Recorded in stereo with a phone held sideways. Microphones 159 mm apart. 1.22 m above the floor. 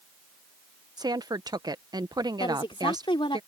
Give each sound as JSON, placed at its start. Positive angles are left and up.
{"t": 1.0, "sound": "a woman speaking", "side_deg": -25}
{"t": 2.4, "sound": "a woman speaking", "side_deg": 30}